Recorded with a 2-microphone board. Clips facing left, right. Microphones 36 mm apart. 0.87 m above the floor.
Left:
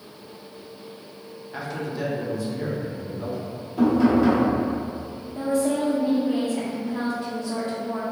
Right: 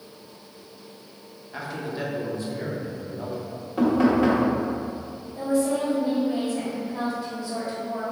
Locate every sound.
1.5 s a man speaking: 5° left (ahead or behind), 0.7 m; by 3.5 s 60° right (ahead or behind), 1.4 m
3.8 s knocking: 45° right (ahead or behind), 1.3 m
5.3 s a woman speaking: 50° left (ahead or behind), 0.8 m